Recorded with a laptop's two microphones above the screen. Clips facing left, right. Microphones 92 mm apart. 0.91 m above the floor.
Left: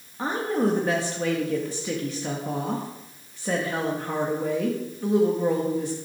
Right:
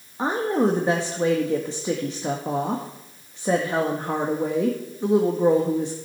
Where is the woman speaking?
25° right (ahead or behind), 1.6 m.